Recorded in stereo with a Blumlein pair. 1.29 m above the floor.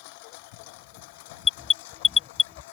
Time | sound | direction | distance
0.0 | a lawn mower | 45° left | ?
1.4 | an alarm | 15° left | ?